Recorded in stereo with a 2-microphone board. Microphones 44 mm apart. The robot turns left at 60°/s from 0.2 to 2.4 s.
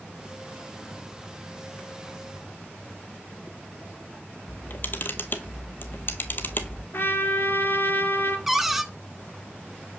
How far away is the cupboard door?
About 0.6 m.